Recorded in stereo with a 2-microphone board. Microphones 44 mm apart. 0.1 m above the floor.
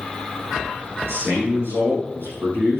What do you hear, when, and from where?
1.1 s a man speaking: 65° right (ahead or behind), 5.5 m